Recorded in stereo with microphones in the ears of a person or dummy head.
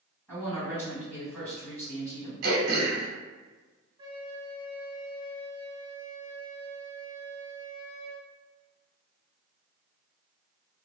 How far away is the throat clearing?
About 0.8 m.